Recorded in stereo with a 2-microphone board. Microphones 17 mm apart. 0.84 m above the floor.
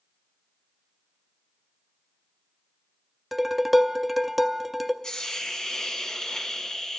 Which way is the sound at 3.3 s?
10° right (ahead or behind).